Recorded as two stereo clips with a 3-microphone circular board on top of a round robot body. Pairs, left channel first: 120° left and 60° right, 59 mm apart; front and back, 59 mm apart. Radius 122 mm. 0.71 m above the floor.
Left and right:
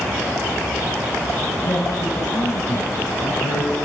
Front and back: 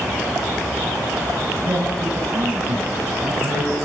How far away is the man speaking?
About 6.5 m.